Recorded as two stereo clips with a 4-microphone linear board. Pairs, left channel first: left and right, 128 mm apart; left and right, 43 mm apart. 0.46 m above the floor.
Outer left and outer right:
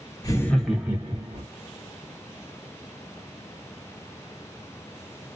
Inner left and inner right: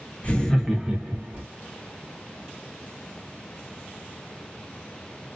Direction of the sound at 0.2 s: 30° left (ahead or behind).